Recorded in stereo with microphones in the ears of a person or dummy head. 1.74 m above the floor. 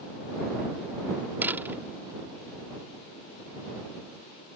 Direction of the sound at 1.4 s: 10° right (ahead or behind).